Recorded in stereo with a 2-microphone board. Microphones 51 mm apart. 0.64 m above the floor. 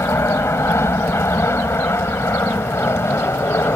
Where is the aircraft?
60° left (ahead or behind); by 3.8 s 55° left (ahead or behind).